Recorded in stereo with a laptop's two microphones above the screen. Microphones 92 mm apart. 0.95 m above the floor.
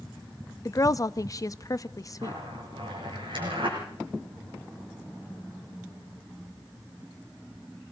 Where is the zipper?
65° right (ahead or behind), 7.5 m.